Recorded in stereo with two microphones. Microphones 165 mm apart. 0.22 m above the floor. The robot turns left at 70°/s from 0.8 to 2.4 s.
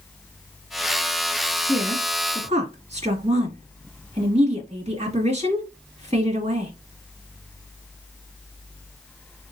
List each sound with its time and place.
1.7 s a woman speaking: centre (ahead or behind), 2.0 m; by 6.7 s 40° right (ahead or behind), 2.0 m